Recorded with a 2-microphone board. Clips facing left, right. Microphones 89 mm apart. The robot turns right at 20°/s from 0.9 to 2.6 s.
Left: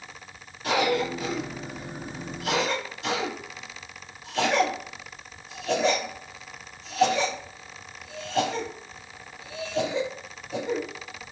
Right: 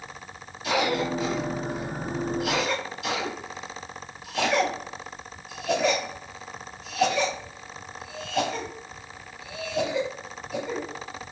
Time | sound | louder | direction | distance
0.6 | a cough | left 1 dB | 40° left (ahead or behind) | 1.9 m